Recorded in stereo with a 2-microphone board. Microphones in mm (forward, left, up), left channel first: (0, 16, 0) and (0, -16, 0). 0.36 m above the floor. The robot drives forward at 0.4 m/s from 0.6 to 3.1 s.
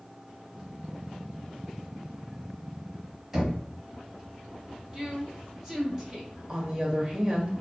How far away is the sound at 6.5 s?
About 1.1 m.